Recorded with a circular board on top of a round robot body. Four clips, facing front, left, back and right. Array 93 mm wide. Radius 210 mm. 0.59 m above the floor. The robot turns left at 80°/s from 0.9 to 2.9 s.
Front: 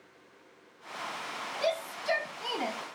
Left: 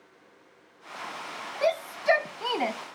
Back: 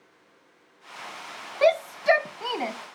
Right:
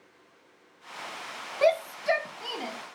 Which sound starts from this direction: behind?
A shout, at 1.6 s.